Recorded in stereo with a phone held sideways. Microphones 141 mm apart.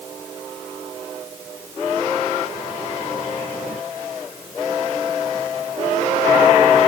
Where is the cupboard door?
I don't hear a cupboard door.